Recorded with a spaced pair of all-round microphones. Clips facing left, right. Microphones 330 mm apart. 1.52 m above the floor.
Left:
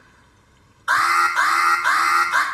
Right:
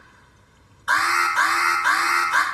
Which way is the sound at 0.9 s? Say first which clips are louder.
Left 2 dB; 35° right (ahead or behind).